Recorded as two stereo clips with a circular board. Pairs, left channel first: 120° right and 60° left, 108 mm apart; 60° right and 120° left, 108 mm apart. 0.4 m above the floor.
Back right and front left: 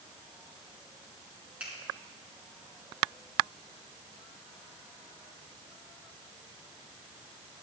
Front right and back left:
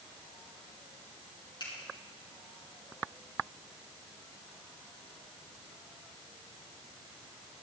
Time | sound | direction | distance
1.6 | a finger snap | 15° right | 4.5 m